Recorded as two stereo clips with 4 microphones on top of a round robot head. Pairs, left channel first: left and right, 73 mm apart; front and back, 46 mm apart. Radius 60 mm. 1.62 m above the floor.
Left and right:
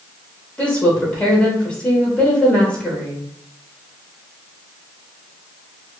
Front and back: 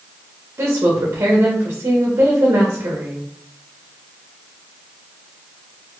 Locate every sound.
0.6 s a woman speaking: 160° left, 0.9 m